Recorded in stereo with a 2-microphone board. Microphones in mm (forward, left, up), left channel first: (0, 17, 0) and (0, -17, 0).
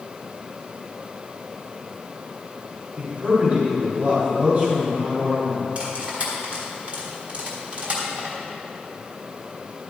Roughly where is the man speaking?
Right.